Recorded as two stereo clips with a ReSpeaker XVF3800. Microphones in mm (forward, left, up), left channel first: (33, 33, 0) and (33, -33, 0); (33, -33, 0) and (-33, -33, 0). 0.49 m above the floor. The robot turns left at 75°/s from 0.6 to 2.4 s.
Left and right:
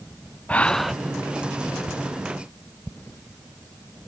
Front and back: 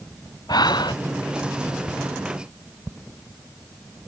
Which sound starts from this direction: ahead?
Breathing, at 0.5 s.